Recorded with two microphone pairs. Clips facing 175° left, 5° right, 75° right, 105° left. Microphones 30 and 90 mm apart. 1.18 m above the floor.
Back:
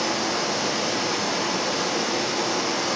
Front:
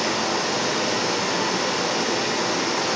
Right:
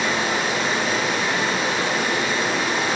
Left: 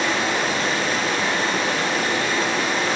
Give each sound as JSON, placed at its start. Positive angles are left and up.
{"t": 0.0, "sound": "running water", "azimuth_deg": 10, "distance_m": 3.5}